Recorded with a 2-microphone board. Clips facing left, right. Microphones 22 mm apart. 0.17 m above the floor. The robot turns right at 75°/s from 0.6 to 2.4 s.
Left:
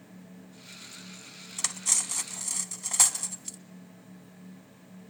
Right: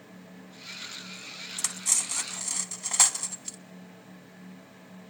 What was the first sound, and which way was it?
Cutlery clinking, 15° left (ahead or behind).